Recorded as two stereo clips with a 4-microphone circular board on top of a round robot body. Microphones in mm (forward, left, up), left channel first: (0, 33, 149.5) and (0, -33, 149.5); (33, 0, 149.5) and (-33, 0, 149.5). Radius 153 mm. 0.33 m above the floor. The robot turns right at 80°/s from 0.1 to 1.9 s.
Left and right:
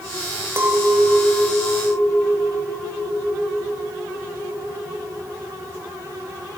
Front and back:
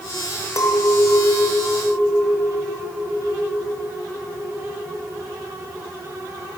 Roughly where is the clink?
Ahead right.